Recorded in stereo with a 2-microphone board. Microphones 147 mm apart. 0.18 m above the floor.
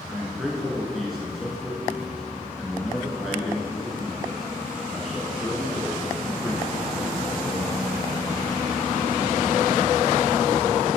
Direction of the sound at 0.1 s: Centre (ahead or behind).